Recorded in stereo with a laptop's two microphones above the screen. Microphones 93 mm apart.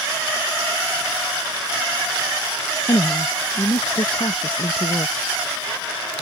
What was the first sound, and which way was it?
A woman speaking, 60° left (ahead or behind).